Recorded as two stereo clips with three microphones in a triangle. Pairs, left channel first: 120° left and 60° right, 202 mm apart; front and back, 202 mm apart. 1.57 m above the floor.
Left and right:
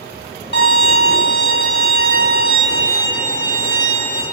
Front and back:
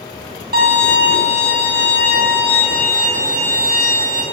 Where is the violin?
145° left, 0.8 m.